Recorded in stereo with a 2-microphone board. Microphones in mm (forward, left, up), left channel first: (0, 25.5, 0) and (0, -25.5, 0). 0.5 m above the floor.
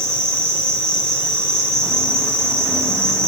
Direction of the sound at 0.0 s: 10° left (ahead or behind).